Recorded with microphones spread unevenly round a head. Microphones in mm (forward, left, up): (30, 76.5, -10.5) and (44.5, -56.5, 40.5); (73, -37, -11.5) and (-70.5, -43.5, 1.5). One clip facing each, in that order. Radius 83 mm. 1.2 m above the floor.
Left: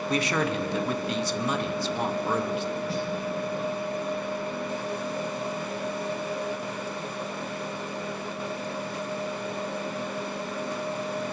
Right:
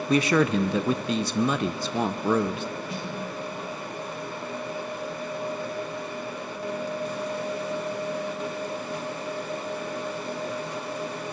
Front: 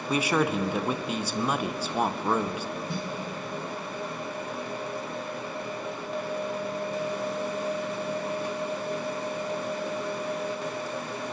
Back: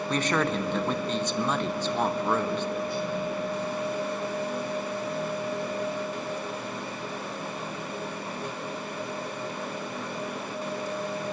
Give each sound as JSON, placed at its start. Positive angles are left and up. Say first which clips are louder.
{"t": 0.1, "sound": "a man speaking", "louder": "right 6 dB, front 2 dB", "azimuth_deg": -75, "distance_m": 0.6}
{"t": 2.9, "sound": "a snare drum", "louder": "left 4 dB, back 3 dB", "azimuth_deg": 35, "distance_m": 2.5}